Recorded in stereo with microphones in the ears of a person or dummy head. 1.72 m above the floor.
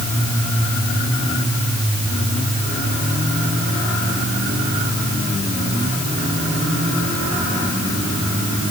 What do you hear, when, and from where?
Only background noise.